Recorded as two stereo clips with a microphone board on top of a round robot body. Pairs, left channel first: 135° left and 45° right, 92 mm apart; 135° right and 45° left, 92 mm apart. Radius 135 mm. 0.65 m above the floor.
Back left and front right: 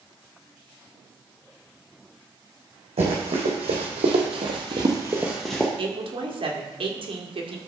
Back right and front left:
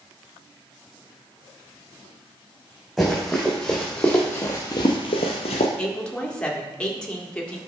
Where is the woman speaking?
55° right, 1.7 m.